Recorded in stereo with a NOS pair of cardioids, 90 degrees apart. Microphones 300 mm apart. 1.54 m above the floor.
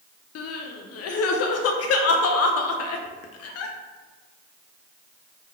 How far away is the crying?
About 0.5 m.